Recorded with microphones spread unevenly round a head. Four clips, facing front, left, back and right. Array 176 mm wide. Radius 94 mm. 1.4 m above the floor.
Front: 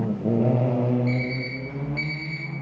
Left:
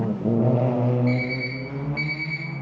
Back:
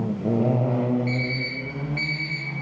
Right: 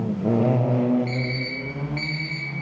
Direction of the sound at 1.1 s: 25° right.